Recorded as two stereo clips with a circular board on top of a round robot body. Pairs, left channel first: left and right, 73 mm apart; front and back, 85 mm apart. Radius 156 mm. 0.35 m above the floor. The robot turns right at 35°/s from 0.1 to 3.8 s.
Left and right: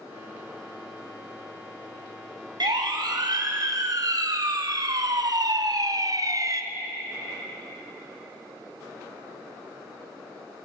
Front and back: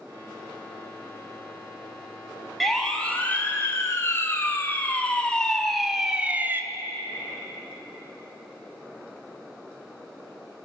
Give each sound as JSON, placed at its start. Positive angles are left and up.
{"t": 2.6, "sound": "a siren", "azimuth_deg": -90, "distance_m": 3.0}